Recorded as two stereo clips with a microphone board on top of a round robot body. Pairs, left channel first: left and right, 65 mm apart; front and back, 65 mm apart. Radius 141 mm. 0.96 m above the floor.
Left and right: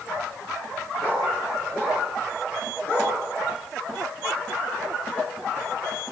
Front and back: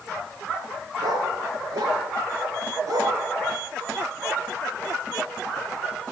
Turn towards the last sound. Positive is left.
turn(degrees=150)